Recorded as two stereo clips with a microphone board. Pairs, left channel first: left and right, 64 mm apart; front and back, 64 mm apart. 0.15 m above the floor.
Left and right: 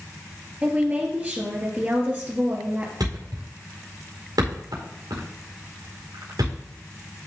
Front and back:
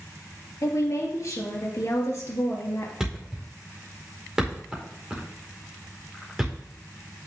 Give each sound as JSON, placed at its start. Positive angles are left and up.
{"t": 0.6, "sound": "a woman speaking", "azimuth_deg": -30, "distance_m": 3.0}
{"t": 3.0, "sound": "a thud", "azimuth_deg": -95, "distance_m": 4.5}